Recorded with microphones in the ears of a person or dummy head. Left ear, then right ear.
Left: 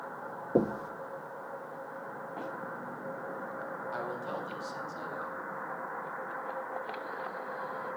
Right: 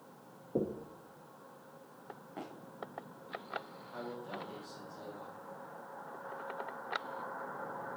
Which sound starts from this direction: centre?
Running footsteps, at 2.4 s.